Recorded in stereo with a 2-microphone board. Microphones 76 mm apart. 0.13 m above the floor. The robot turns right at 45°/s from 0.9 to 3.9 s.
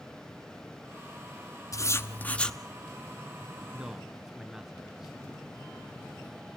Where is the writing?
135° left, 0.8 m; by 2.6 s 175° left, 0.8 m.